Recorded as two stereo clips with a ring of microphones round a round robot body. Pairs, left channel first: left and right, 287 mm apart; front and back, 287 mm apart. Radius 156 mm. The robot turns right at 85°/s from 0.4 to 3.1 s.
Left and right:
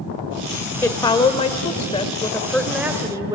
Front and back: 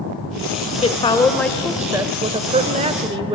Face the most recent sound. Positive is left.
turn(degrees=-145)